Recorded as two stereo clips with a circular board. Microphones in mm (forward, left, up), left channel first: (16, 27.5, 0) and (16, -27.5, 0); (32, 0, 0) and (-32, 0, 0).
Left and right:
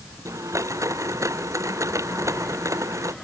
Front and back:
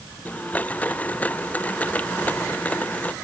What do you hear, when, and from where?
0.2 s a blender: 65° right